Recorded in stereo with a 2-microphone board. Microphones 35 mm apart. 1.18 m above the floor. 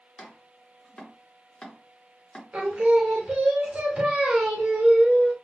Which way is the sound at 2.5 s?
35° right (ahead or behind).